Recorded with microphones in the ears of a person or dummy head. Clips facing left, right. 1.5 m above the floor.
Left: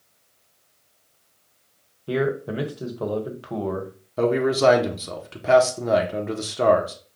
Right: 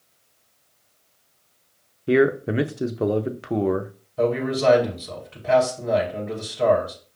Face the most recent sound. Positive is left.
turn(degrees=65)  # may be behind; listen again after turning